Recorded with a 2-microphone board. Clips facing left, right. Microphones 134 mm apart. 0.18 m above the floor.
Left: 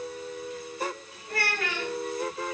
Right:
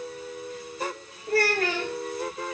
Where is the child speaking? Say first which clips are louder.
Right 8 dB; 35° right (ahead or behind), 3.5 m.